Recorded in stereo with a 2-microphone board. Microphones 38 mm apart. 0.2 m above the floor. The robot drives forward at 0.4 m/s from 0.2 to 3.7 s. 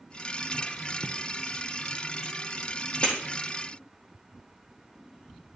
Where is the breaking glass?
35° left (ahead or behind), 4 m.